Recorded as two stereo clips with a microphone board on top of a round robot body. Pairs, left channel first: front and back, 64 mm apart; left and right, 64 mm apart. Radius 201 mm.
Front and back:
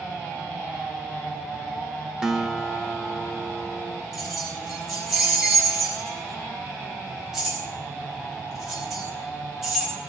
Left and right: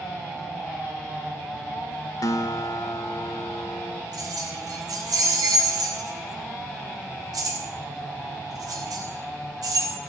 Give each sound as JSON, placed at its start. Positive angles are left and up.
{"t": 2.2, "sound": "a guitar", "azimuth_deg": 100, "distance_m": 1.6}
{"t": 4.1, "sound": "keys jangling", "azimuth_deg": -95, "distance_m": 4.5}